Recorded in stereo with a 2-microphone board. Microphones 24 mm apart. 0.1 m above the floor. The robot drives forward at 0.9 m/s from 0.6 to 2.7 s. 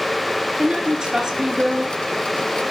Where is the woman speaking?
30° right (ahead or behind), 2.0 m.